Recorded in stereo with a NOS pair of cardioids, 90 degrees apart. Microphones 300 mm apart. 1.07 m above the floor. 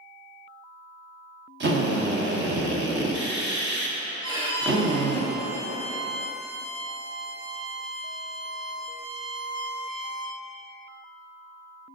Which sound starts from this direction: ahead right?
A drill, at 1.6 s.